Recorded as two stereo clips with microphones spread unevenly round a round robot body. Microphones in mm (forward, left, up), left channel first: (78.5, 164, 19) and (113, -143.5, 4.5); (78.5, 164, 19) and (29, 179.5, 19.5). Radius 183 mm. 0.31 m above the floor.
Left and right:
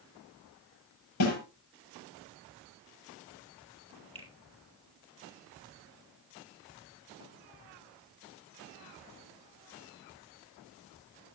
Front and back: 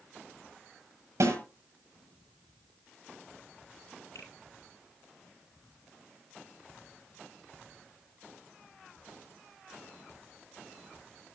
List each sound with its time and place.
1.2 s a snare drum: 145° left, 7 m
4.2 s a finger snap: 15° right, 6 m